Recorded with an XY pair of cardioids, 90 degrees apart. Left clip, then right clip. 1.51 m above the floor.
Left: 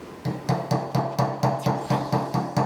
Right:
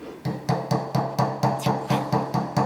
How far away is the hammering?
About 0.7 m.